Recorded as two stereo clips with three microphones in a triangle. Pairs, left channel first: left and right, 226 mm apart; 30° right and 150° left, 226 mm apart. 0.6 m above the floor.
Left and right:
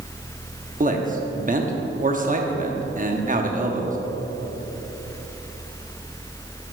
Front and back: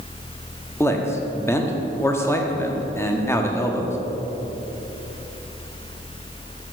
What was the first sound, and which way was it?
A man speaking, 100° right.